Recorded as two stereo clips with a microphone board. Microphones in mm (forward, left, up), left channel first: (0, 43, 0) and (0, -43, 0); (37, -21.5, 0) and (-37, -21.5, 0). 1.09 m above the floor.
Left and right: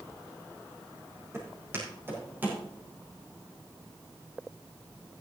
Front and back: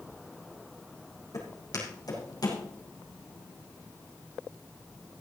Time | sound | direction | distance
1.3 | footsteps | 35° right | 4 m